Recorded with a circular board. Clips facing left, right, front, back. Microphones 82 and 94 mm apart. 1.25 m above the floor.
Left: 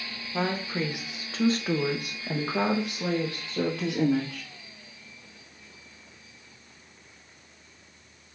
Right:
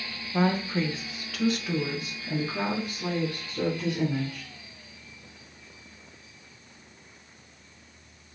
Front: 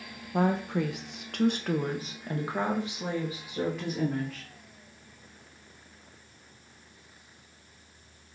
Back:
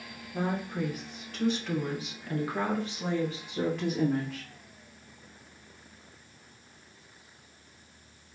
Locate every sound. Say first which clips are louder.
0.3 s a woman speaking: right 3 dB, front 5 dB; 5° right, 0.9 m; by 4.5 s 90° left, 1.8 m